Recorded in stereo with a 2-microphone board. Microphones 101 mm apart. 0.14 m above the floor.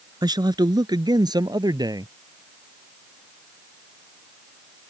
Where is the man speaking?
45° right (ahead or behind); by 2.1 s 40° right (ahead or behind).